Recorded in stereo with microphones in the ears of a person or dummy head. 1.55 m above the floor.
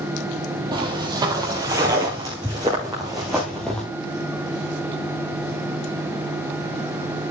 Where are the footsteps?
20° right (ahead or behind), 2 m; by 3.8 s 5° left (ahead or behind), 1.7 m.